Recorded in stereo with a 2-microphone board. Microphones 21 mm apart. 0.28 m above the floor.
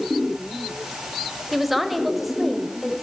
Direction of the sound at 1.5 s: 10° right (ahead or behind).